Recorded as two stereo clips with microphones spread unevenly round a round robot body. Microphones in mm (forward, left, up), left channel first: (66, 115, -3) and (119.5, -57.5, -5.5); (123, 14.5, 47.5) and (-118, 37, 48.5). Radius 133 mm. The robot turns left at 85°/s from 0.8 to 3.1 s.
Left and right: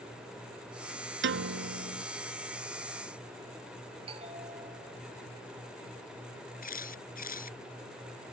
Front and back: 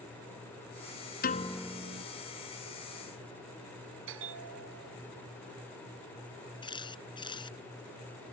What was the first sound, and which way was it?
A piano, 60° right.